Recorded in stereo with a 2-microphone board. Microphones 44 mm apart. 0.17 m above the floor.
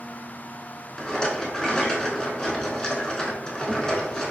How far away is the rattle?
About 0.6 m.